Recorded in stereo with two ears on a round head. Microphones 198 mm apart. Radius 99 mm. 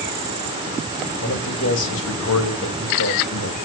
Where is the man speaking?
55° left (ahead or behind), 3 m.